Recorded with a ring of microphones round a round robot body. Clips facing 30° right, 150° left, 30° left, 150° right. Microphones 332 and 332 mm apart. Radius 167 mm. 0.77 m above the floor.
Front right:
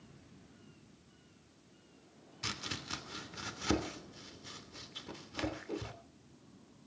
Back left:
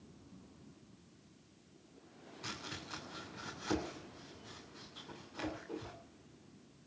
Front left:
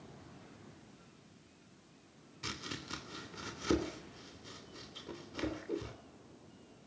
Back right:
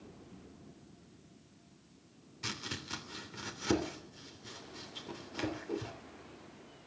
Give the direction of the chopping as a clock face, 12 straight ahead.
2 o'clock.